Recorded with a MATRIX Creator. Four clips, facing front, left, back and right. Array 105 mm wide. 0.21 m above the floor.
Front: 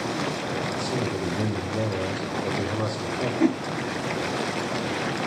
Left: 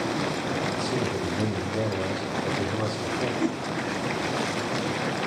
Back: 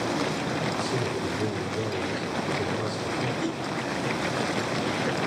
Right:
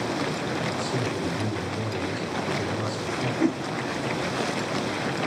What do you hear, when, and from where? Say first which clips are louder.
0.7 s a man speaking: left 1 dB, front 1 dB; 35° left, 7.5 m
3.4 s a whoosh: right 7 dB, front 8 dB; 15° right, 0.6 m